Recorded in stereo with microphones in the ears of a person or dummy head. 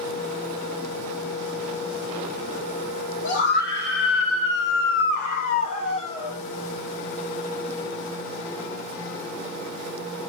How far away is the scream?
About 1.7 m.